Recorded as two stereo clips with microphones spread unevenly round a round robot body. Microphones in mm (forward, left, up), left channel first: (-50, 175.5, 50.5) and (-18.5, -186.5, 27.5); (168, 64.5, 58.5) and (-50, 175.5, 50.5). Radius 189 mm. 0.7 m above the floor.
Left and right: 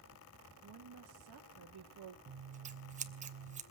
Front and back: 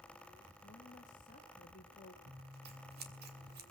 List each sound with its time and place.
0.6 s a woman speaking: 80° right, 1.2 m
2.3 s scissors: 155° right, 1.2 m